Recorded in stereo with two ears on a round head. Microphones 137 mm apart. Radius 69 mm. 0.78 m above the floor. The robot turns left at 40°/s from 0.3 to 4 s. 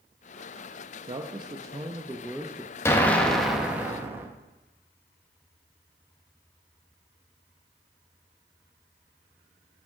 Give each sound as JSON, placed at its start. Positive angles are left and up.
{"t": 1.1, "sound": "a man speaking", "azimuth_deg": -115, "distance_m": 0.5}
{"t": 2.9, "sound": "an explosion", "azimuth_deg": 25, "distance_m": 0.7}